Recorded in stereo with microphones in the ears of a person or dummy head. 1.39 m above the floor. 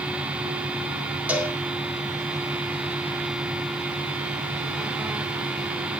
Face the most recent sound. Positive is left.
turn(degrees=-10)  # may be behind; listen again after turning